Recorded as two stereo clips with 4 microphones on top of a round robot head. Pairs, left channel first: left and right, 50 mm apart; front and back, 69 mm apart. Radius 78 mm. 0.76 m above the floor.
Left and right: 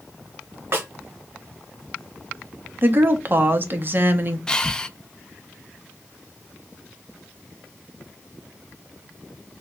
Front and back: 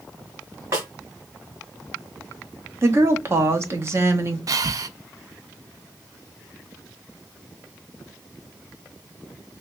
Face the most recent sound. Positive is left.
turn(degrees=165)